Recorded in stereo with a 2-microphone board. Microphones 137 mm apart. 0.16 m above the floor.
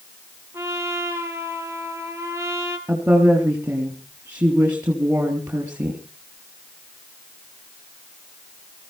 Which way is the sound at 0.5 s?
20° right (ahead or behind).